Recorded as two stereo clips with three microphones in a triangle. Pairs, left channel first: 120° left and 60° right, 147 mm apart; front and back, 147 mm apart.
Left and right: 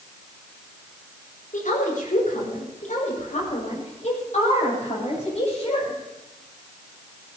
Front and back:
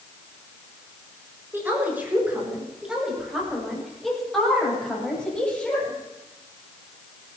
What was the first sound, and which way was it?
A woman speaking, 105° left.